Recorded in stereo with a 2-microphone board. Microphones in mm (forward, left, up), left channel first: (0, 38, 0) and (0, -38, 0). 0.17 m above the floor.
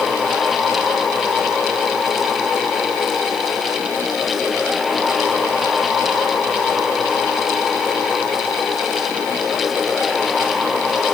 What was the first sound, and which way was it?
Only background noise.